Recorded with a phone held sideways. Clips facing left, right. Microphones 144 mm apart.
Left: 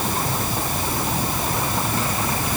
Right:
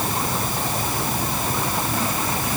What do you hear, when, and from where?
Only background noise.